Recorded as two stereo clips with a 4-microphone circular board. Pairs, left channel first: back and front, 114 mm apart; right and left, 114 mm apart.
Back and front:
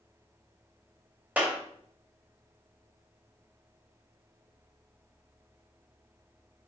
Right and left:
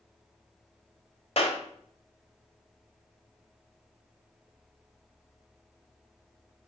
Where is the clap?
75° right, 1.8 m.